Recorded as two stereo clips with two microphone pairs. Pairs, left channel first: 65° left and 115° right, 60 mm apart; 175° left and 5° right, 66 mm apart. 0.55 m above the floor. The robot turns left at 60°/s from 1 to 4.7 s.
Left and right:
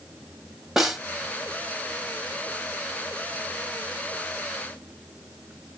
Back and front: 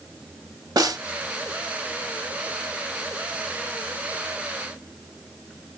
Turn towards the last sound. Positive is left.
turn(degrees=105)